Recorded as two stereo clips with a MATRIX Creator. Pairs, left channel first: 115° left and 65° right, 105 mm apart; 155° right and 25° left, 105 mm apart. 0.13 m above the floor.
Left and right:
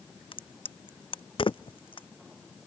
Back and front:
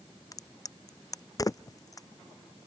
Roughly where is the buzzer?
No buzzer in this recording.